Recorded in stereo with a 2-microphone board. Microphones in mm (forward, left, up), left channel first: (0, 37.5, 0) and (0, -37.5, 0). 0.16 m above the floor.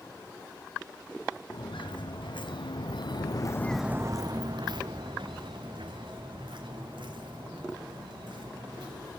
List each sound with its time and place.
1.5 s footsteps: 85° left, 3 m; by 9.1 s 85° right, 7 m